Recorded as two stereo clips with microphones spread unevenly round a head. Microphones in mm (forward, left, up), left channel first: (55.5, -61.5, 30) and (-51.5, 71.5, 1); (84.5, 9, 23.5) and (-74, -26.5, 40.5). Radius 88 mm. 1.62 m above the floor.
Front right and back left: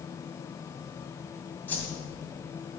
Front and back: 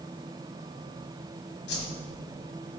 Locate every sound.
1.7 s a whoosh: 15° left, 2 m